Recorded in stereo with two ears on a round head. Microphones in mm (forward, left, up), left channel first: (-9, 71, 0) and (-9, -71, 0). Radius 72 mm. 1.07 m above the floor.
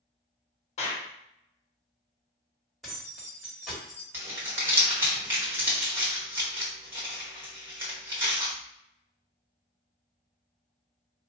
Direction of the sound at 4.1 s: 15° right (ahead or behind).